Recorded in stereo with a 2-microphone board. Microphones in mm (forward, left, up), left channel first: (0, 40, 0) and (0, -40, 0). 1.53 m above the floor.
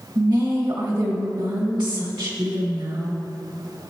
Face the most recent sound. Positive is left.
turn(degrees=-70)  # may be behind; listen again after turning